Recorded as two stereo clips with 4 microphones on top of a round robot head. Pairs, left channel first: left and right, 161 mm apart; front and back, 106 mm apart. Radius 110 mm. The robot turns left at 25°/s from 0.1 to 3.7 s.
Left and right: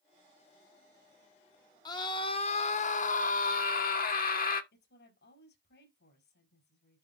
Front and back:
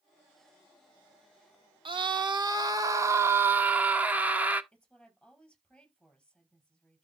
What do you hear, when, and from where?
1.9 s a scream: 155° left, 1.9 m; by 4.6 s 110° left, 1.9 m
4.7 s a woman speaking: 85° left, 4.5 m